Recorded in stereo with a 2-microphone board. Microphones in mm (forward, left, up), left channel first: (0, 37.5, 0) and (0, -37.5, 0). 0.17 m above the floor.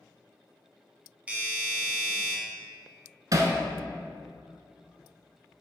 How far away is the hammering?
About 0.8 m.